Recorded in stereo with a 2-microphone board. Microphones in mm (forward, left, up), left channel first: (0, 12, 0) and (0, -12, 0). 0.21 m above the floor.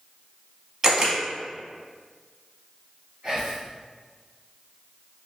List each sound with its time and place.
0.8 s a camera shutter: 25° right (ahead or behind), 0.9 m
3.2 s whispering: 25° right (ahead or behind), 1.4 m